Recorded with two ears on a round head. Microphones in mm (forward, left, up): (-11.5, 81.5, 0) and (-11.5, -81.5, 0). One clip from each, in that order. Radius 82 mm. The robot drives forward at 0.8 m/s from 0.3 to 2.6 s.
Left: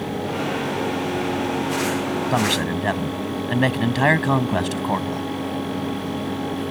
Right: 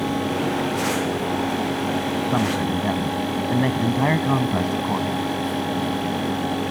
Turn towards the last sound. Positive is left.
turn(degrees=70)  # may be behind; listen again after turning